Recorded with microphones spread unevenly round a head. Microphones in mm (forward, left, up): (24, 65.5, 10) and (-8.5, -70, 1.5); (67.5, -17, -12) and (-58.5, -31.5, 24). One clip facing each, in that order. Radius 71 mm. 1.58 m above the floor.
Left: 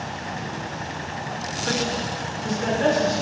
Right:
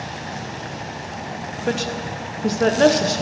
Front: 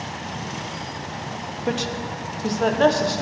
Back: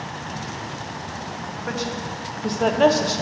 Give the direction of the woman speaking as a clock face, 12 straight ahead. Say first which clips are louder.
Right 2 dB, front 3 dB; 2 o'clock.